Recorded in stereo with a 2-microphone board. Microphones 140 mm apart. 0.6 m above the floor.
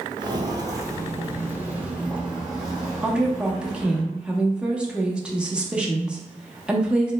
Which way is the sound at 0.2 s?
35° right (ahead or behind).